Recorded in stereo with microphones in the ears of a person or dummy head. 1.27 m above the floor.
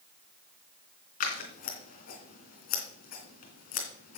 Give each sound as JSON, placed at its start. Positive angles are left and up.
{"t": 1.2, "sound": "scissors", "side_deg": 45, "distance_m": 2.5}